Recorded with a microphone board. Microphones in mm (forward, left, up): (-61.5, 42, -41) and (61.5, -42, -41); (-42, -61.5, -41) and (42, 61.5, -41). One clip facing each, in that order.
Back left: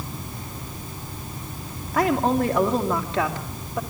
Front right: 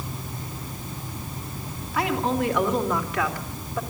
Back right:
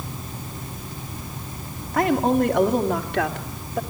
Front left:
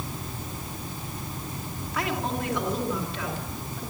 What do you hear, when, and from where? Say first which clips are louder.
1.9 s a woman speaking: back left 4 dB, back right 11 dB; 170° right, 3 m; by 3.8 s 140° right, 3 m